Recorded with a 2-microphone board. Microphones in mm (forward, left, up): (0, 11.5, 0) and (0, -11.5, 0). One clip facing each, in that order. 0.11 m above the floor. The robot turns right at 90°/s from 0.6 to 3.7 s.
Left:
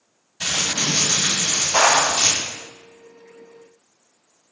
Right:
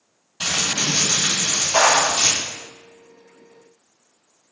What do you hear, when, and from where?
0.4 s crumpling: 135° right, 1.2 m; by 2.4 s 25° left, 1.2 m
1.7 s a clap: 5° left (ahead or behind), 1.7 m; by 2.1 s 25° left (ahead or behind), 1.7 m